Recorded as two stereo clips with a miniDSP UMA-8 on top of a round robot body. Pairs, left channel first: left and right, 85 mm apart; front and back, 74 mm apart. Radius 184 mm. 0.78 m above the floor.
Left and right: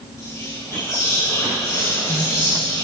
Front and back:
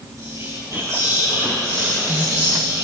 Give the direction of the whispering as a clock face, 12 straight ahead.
7 o'clock.